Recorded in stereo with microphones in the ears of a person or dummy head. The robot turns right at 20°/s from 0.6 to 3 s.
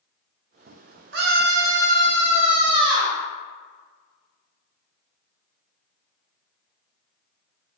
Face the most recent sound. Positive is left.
turn(degrees=-30)